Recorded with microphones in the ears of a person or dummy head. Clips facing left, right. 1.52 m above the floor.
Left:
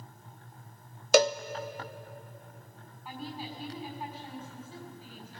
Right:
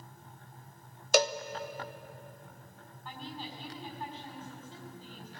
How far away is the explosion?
No explosion in this recording.